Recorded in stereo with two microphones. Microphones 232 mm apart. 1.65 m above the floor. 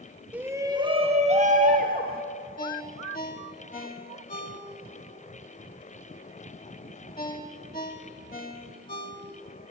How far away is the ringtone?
About 1.8 m.